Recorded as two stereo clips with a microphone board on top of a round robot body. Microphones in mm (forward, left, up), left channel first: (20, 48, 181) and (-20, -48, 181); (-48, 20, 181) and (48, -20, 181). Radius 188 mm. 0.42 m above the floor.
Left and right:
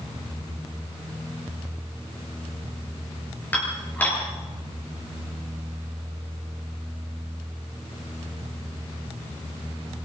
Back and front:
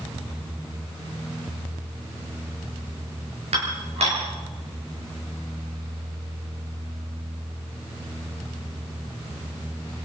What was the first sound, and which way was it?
Dishes clattering, 5° right.